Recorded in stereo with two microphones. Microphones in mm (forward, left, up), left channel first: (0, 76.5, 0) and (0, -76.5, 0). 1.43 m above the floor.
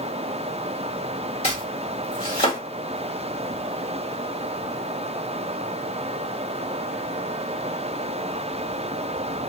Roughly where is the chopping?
Left.